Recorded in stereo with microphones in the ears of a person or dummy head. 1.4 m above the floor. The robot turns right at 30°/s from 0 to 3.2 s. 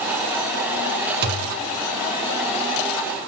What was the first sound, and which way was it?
A thud, 55° right (ahead or behind).